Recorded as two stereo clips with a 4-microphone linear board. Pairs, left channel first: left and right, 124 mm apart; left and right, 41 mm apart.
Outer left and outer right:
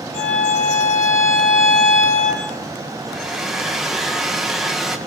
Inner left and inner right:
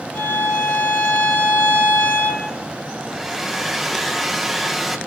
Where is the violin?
65° left (ahead or behind), 7.5 m.